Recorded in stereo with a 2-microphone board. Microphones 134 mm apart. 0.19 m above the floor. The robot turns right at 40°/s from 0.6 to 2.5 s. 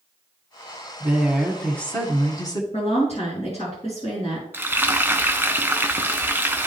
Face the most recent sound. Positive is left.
turn(degrees=-15)  # may be behind; listen again after turning